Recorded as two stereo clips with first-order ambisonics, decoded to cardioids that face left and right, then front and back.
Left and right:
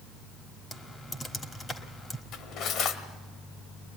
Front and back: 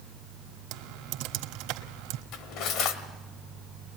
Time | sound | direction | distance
0.7 | typing on a keyboard | 165° left | 1.5 m
2.3 | cutlery clinking | 40° left | 1.6 m